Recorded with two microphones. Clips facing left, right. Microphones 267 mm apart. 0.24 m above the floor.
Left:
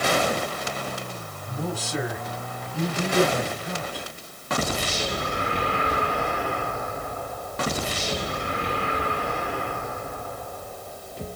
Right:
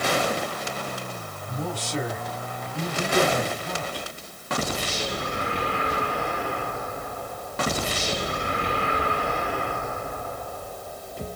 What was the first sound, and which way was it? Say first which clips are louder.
A man speaking: left 1 dB; 5° left (ahead or behind).